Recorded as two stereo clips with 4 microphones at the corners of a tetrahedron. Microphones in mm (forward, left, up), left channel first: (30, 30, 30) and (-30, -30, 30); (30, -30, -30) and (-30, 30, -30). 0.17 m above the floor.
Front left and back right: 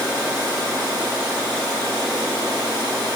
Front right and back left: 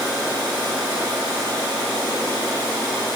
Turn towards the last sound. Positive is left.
No sound to turn to.